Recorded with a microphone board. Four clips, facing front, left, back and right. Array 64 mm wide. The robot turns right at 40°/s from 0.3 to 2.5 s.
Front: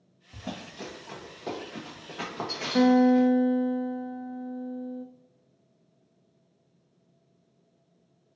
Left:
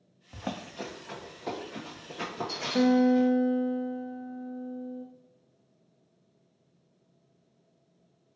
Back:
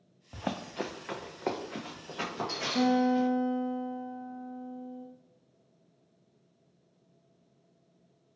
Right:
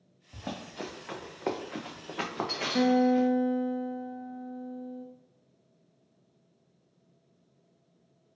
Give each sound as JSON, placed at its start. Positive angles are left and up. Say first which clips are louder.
{"t": 0.3, "sound": "running footsteps", "louder": "left 2 dB, back 4 dB", "azimuth_deg": 150, "distance_m": 0.6}
{"t": 2.8, "sound": "a guitar", "louder": "left 1 dB, front 6 dB", "azimuth_deg": -5, "distance_m": 0.7}